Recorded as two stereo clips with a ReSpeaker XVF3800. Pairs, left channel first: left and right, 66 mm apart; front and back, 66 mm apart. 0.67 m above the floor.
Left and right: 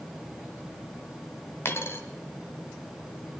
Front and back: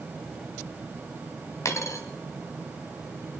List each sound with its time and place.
1.6 s a dropped coin: 40° left, 1.6 m